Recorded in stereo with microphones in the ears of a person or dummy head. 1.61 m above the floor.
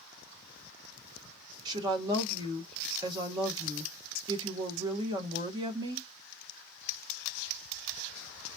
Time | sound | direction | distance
1.6 | a woman speaking | 25° right (ahead or behind) | 1.3 m